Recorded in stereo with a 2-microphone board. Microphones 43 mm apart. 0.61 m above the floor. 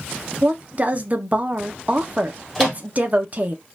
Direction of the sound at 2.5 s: 10° left (ahead or behind).